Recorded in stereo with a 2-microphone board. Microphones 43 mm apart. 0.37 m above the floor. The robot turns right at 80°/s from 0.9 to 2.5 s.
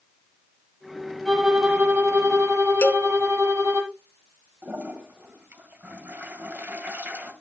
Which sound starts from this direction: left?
A cowbell, at 2.8 s.